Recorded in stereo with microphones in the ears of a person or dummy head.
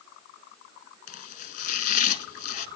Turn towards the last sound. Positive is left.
turn(degrees=40)  # may be behind; listen again after turning